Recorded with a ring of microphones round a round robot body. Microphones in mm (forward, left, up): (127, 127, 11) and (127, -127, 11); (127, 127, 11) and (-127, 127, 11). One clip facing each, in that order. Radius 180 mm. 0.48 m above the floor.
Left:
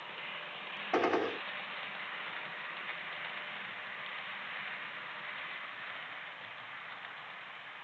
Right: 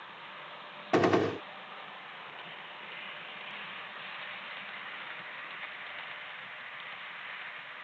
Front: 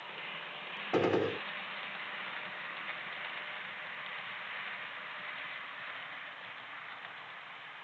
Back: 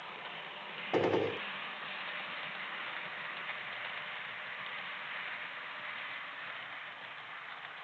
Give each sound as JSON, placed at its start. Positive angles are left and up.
{"t": 0.9, "sound": "a gunshot", "azimuth_deg": -80}